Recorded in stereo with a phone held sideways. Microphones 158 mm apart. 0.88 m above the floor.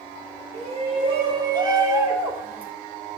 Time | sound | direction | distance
0.5 | a shout | 40° right (ahead or behind) | 3 m